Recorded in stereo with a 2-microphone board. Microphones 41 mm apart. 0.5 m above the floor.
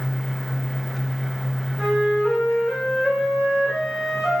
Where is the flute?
10° right (ahead or behind), 9 m.